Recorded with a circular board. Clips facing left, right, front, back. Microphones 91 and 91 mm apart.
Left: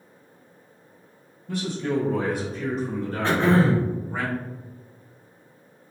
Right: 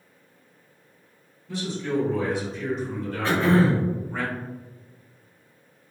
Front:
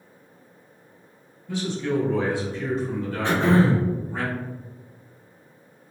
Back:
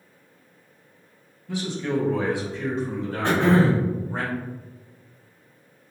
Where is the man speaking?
100° left, 1.9 m; by 4.2 s 165° left, 1.4 m.